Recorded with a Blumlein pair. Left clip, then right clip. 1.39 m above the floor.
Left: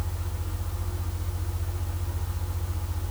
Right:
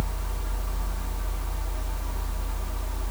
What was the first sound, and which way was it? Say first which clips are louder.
A fan: right 4 dB; 35° right.